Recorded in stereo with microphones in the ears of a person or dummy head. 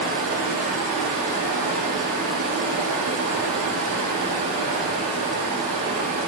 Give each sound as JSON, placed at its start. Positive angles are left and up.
{"t": 0.0, "sound": "running water", "side_deg": -60, "distance_m": 2.5}